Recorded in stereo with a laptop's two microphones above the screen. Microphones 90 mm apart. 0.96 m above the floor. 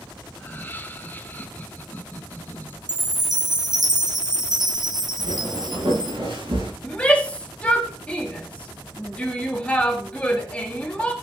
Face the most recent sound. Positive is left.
turn(degrees=15)  # may be behind; listen again after turning